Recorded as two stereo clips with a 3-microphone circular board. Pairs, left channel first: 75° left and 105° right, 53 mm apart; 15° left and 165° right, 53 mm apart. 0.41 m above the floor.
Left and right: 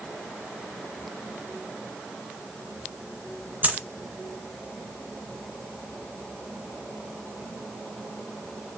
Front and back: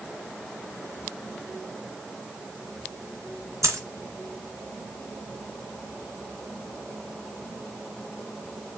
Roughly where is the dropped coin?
Behind.